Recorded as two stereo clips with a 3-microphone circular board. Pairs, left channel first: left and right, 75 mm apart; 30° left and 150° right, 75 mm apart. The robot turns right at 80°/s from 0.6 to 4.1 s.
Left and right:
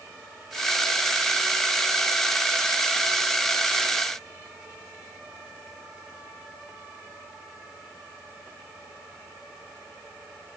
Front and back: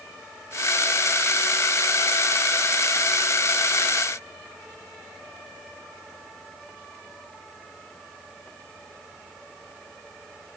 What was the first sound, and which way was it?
Only background noise.